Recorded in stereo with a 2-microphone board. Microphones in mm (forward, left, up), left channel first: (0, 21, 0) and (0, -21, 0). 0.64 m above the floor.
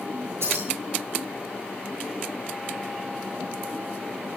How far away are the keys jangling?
About 8.5 m.